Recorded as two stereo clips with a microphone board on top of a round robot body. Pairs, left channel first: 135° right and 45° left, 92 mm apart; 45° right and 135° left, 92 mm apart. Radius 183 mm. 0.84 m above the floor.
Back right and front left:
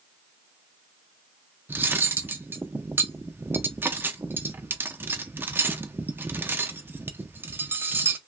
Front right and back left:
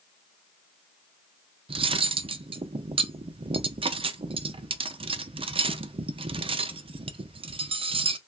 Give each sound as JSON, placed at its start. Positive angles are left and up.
{"t": 1.7, "sound": "cutlery clinking", "azimuth_deg": 115, "distance_m": 0.5}